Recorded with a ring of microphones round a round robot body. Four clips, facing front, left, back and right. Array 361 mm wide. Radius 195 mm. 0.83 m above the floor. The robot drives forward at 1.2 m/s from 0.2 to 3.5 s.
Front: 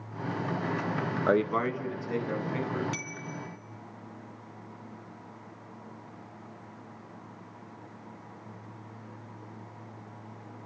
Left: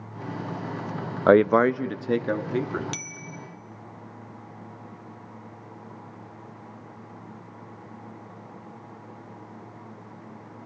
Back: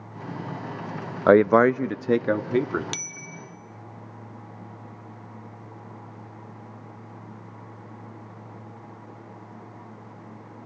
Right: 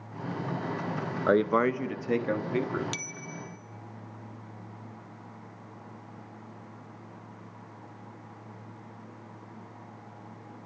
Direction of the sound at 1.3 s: 135° left.